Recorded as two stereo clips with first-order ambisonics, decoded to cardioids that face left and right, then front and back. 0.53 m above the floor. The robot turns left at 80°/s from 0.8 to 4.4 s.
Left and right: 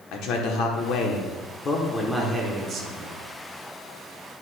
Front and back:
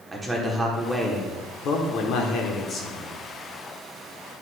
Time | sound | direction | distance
0.1 | a man speaking | 105° left | 1.2 m